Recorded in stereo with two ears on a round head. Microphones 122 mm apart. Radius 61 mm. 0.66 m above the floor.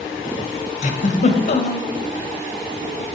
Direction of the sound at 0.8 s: 55° left (ahead or behind).